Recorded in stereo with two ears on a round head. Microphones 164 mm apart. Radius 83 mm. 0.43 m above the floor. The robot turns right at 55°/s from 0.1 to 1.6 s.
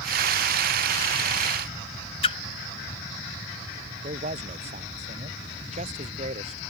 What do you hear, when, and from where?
2.2 s a splash: 30° left (ahead or behind)
4.0 s a man speaking: 35° right (ahead or behind)